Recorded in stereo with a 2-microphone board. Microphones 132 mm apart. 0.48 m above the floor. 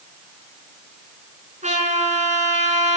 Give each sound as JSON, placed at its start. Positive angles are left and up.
{"t": 1.6, "sound": "a trumpet", "side_deg": -70, "distance_m": 5.0}